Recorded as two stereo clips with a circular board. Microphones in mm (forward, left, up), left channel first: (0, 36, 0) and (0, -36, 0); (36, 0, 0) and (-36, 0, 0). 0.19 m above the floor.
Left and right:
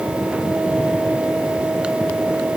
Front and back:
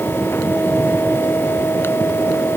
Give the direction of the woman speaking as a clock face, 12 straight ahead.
I don't hear a woman speaking.